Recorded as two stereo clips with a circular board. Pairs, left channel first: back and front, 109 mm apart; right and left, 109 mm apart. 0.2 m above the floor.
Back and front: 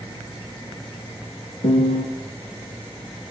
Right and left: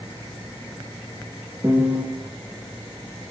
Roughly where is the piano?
Behind.